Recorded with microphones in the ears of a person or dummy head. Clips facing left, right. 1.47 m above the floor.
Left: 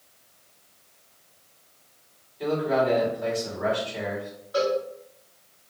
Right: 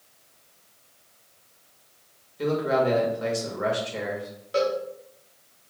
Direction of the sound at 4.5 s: 30° right (ahead or behind).